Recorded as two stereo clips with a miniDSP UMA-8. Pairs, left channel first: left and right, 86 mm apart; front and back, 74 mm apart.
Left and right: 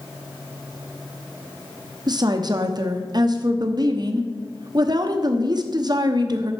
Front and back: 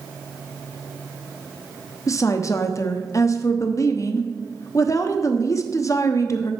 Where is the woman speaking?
50° right, 0.8 m.